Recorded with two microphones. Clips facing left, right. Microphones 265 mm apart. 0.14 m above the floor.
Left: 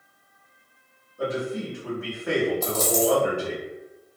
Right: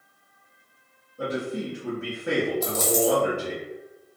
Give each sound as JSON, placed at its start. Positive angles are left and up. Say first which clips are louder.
{"t": 1.2, "sound": "a man speaking", "louder": "left 1 dB", "side_deg": -20, "distance_m": 1.3}
{"t": 2.6, "sound": "a dropped coin", "louder": "even", "side_deg": -10, "distance_m": 0.9}